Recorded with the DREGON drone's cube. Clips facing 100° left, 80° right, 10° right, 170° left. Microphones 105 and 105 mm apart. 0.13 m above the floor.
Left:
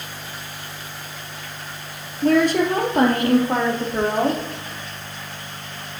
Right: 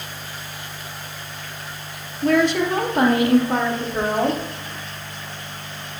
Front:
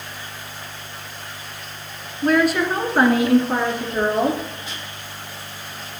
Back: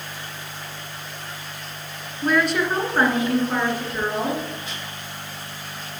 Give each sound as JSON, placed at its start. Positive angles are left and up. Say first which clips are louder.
{"t": 2.2, "sound": "a woman speaking", "louder": "left 1 dB, front 3 dB", "azimuth_deg": 80, "distance_m": 1.7}